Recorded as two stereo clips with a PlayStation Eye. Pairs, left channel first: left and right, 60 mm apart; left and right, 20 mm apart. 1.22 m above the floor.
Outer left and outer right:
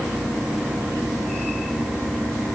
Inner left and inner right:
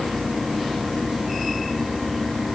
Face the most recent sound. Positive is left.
No sound to turn to.